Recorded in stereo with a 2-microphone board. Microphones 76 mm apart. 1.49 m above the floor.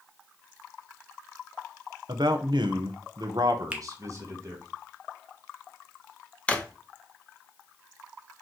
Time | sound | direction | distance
2.1 | a man speaking | 70° right (ahead or behind) | 0.9 m
3.7 | a finger snap | 15° right (ahead or behind) | 0.8 m
6.5 | a drawer | 20° left (ahead or behind) | 0.7 m